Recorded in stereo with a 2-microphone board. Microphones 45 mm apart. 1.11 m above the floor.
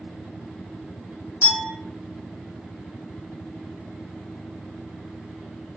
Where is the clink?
70° left (ahead or behind), 1.4 m.